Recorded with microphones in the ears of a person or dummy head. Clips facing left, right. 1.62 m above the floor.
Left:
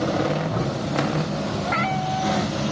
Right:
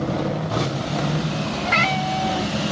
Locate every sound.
1.6 s a cat meowing: 35° right (ahead or behind)